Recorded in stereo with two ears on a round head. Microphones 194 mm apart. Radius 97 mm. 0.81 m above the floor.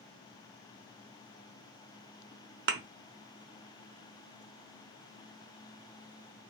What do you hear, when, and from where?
2.7 s a thud: 55° right (ahead or behind), 0.5 m